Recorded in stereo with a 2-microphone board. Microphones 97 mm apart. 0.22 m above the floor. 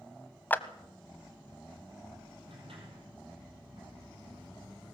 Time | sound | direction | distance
0.5 | a clap | 20° left (ahead or behind) | 1.0 m
2.5 | a sliding door | 70° right (ahead or behind) | 5 m